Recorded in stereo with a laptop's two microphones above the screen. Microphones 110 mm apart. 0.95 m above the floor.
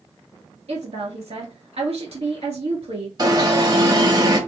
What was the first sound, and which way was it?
A woman speaking, 70° right (ahead or behind).